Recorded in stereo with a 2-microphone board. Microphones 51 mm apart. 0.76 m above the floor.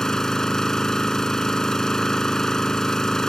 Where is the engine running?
10° left (ahead or behind).